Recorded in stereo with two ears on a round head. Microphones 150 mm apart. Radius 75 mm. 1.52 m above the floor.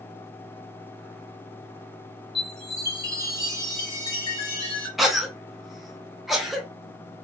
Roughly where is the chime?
Left.